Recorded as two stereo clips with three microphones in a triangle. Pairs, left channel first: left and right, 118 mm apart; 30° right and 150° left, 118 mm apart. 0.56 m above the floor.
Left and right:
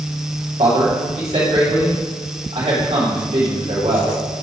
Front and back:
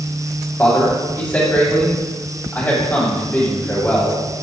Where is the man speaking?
105° right, 2.5 m.